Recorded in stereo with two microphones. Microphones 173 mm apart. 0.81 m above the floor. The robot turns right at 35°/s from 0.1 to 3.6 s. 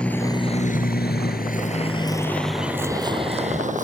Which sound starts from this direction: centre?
A vehicle, at 0.0 s.